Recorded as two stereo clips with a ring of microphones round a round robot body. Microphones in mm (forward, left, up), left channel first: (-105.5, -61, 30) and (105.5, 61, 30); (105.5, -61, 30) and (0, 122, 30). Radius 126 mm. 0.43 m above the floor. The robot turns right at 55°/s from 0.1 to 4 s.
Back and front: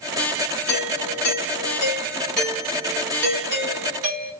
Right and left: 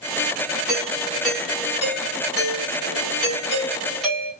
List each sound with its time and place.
0.7 s a doorbell: 155° right, 3 m; by 4.3 s 25° left, 3 m